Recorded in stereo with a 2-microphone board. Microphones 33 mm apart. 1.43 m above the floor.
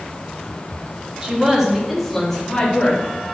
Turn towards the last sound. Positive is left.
turn(degrees=20)  # may be behind; listen again after turning